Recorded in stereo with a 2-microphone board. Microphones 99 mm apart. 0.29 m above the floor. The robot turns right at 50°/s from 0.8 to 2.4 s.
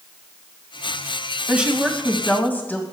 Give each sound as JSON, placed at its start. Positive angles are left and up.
{"t": 1.5, "sound": "a woman speaking", "azimuth_deg": -20, "distance_m": 1.9}